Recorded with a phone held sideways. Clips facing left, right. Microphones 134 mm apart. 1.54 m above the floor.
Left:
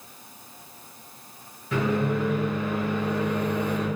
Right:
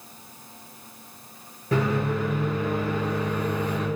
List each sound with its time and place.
1.7 s a microwave: 40° right (ahead or behind), 1.0 m